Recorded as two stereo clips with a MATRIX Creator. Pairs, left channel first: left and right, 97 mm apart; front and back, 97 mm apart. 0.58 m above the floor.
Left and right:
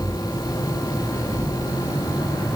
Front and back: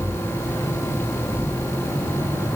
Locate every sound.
Only background noise.